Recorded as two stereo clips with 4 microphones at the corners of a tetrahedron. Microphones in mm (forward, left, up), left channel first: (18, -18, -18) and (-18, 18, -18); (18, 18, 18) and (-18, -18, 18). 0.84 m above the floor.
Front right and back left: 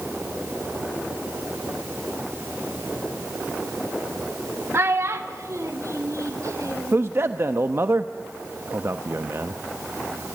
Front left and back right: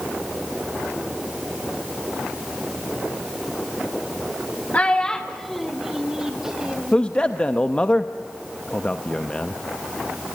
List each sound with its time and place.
4.7 s a child speaking: 105° left, 0.9 m; by 7.0 s 150° left, 2.5 m
6.9 s a man speaking: 115° left, 0.7 m